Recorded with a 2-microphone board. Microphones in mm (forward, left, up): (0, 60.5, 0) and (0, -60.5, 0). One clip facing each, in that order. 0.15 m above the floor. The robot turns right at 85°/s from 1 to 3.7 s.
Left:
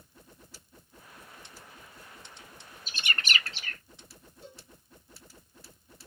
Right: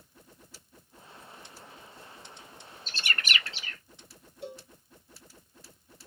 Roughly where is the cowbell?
Right.